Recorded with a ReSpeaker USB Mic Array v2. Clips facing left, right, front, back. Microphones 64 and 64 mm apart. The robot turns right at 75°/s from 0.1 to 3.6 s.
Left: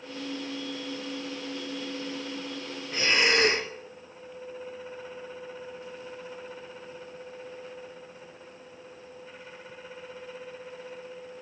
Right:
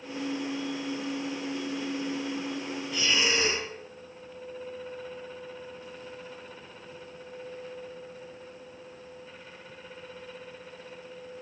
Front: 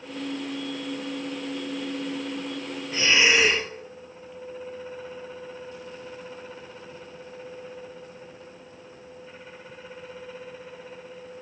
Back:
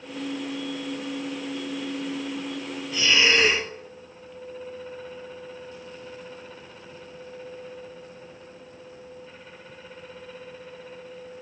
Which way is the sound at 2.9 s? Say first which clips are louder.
Left 4 dB, even; 45° left.